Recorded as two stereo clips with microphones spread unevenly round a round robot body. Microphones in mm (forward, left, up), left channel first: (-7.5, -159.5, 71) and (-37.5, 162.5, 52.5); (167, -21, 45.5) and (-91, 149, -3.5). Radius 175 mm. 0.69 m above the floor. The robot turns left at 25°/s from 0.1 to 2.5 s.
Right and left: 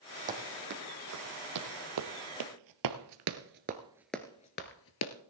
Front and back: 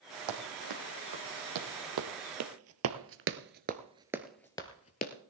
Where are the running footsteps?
165° left, 2.5 m; by 5.1 s 75° right, 0.9 m.